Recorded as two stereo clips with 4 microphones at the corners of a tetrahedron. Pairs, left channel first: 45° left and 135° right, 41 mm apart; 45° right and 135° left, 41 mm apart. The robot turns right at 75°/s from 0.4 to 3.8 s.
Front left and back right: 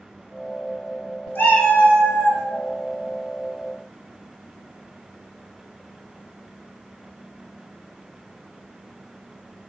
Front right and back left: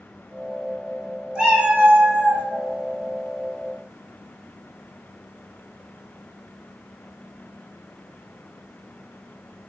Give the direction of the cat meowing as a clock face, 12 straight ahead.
10 o'clock.